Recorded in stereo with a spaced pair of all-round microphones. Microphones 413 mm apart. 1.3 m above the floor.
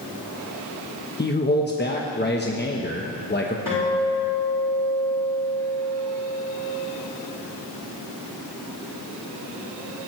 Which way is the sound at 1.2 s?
25° left (ahead or behind).